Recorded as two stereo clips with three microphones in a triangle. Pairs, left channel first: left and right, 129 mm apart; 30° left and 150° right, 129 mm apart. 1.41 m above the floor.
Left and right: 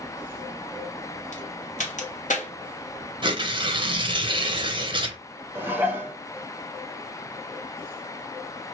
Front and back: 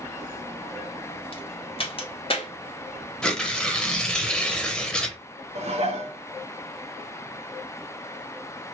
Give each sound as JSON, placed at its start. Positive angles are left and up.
{"t": 1.3, "sound": "a crack", "azimuth_deg": 75, "distance_m": 0.8}
{"t": 3.2, "sound": "tearing paper", "azimuth_deg": -55, "distance_m": 0.6}
{"t": 5.5, "sound": "dishes clattering", "azimuth_deg": -165, "distance_m": 0.7}